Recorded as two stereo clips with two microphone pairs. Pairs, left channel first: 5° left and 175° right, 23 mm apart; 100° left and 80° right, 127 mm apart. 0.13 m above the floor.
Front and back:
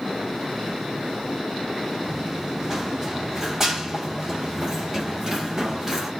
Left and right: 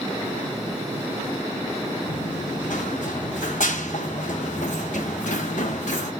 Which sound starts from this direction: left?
Running footsteps, at 2.1 s.